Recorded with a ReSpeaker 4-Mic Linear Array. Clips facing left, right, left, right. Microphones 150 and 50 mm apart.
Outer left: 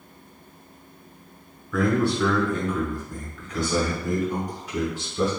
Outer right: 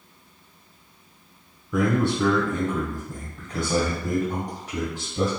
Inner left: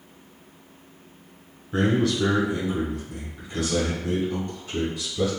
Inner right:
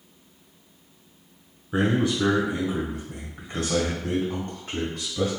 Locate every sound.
1.7 s a man speaking: 25° right (ahead or behind), 1.3 m; by 5.3 s 65° right (ahead or behind), 2.5 m